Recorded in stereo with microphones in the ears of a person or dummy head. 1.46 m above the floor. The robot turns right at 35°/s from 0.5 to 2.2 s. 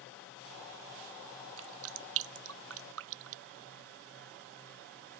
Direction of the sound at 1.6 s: 75° right (ahead or behind).